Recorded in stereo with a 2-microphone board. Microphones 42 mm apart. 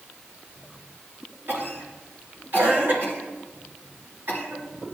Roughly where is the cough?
Right.